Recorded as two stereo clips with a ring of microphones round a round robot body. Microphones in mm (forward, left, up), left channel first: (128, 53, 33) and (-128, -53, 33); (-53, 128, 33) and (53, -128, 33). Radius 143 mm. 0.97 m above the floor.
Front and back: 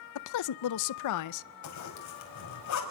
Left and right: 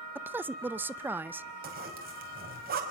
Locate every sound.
0.1 s a woman speaking: 15° left, 0.6 m
1.6 s a zipper: 10° right, 5 m